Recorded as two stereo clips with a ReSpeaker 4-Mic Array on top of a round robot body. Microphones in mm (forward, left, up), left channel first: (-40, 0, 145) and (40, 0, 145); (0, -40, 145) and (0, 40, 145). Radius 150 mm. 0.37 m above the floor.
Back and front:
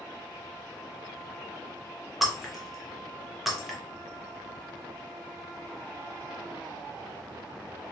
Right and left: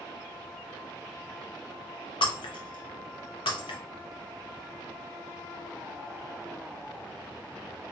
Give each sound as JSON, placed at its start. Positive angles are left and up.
{"t": 2.2, "sound": "breaking glass", "azimuth_deg": -90, "distance_m": 0.8}